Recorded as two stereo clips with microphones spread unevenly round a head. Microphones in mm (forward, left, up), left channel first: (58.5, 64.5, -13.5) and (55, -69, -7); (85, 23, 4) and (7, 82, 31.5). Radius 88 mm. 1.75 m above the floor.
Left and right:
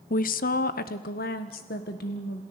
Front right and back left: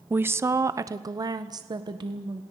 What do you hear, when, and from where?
0.1 s a woman speaking: 80° left, 0.8 m; by 2.4 s 105° left, 1.8 m